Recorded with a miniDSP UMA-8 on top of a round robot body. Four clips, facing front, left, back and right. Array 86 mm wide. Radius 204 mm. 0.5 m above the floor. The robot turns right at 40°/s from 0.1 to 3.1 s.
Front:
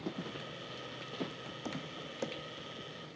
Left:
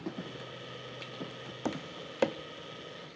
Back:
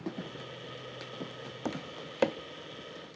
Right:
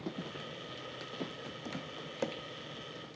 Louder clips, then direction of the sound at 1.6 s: Left 9 dB, back 6 dB; 125° left.